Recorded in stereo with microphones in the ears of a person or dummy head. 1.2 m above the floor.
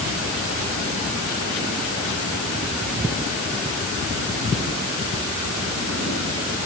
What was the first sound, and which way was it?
Only background noise.